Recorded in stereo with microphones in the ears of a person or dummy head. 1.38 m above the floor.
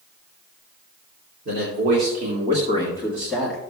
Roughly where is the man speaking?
Right.